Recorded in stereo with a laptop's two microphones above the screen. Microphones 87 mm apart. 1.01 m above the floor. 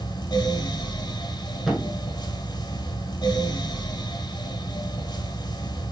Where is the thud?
Centre (ahead or behind), 7 m.